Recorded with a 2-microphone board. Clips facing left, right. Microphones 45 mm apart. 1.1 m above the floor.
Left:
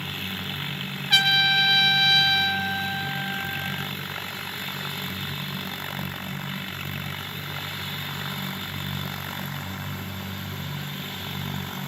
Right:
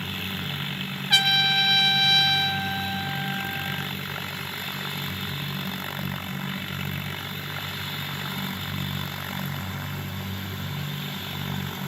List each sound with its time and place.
1.1 s a trumpet: centre (ahead or behind), 0.6 m